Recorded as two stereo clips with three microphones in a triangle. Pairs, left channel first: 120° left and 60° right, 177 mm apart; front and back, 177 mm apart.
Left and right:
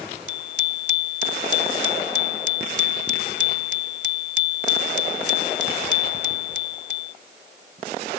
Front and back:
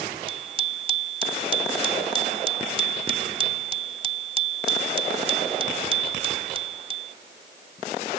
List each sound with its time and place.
0.3 s a bicycle bell: 125° left